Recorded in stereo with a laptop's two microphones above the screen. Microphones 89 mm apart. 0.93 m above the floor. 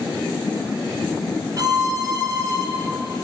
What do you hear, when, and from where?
1.6 s a violin: 35° right (ahead or behind), 3.5 m